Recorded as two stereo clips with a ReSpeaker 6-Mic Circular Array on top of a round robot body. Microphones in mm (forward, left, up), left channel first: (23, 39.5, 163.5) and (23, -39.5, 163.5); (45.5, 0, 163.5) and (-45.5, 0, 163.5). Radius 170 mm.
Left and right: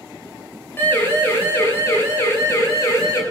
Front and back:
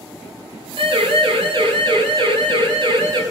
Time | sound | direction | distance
0.8 | a siren | 155° left | 7.5 m